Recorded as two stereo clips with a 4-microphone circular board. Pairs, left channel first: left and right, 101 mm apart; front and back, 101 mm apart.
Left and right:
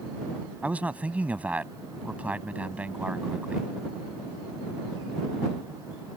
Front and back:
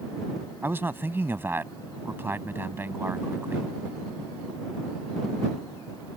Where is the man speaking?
145° right.